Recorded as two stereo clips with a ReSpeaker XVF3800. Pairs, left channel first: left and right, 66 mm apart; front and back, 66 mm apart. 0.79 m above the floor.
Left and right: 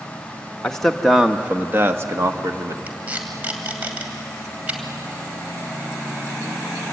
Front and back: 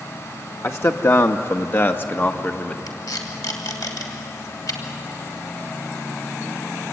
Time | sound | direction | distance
0.6 | a man speaking | 20° left | 1.2 m
2.9 | tape being pulled | 20° right | 2.5 m